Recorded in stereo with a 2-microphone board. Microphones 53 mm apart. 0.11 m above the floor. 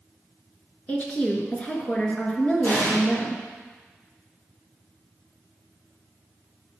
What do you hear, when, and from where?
0.9 s a woman speaking: 25° left (ahead or behind), 1.3 m
2.6 s an explosion: 35° left (ahead or behind), 2 m